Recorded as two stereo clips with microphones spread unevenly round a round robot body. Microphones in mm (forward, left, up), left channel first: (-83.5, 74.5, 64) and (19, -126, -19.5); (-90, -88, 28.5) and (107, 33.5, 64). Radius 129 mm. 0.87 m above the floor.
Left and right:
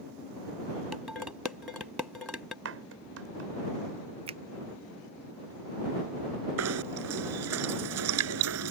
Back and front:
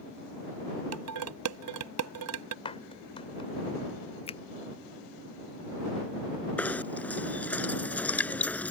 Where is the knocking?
65° right.